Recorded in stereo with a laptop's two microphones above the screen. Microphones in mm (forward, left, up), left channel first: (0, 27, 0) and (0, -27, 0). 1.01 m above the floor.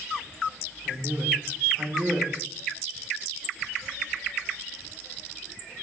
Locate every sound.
0.8 s a man speaking: 40° right (ahead or behind), 2.5 m